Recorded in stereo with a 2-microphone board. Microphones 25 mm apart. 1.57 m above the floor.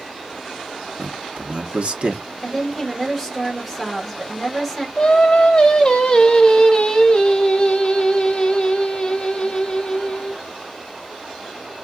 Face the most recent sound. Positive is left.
turn(degrees=30)  # may be behind; listen again after turning